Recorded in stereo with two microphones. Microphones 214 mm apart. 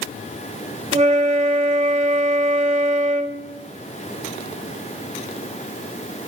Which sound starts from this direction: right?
A flute, at 0.9 s.